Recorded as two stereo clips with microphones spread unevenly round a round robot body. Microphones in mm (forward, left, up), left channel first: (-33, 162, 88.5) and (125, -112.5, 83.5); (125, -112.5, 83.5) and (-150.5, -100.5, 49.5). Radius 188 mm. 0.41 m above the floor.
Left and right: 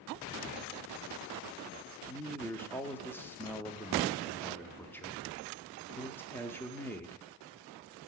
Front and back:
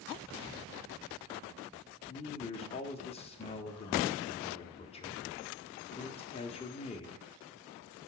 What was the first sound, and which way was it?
A man speaking, 45° left.